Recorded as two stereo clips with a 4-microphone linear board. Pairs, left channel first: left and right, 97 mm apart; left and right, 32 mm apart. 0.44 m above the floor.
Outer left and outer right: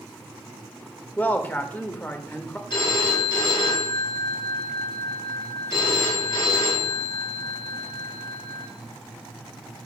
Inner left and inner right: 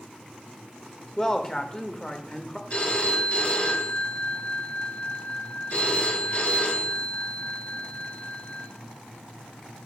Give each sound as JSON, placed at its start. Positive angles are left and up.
{"t": 1.2, "sound": "a man speaking", "side_deg": 20, "distance_m": 1.0}
{"t": 2.7, "sound": "a phone ringing", "side_deg": 45, "distance_m": 3.5}